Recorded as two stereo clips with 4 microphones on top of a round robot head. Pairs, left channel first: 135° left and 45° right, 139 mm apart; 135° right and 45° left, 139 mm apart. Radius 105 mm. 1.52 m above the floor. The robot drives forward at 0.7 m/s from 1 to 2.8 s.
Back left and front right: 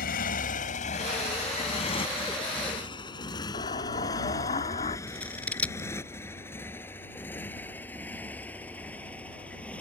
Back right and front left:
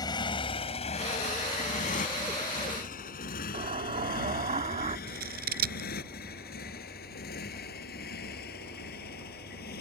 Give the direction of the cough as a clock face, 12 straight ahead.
I don't hear a cough.